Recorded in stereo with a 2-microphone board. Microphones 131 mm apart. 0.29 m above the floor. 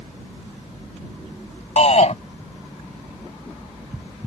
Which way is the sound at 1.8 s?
55° left (ahead or behind).